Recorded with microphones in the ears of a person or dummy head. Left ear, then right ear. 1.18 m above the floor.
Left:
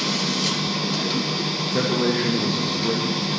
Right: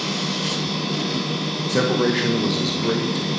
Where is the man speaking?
25° right (ahead or behind), 0.8 m.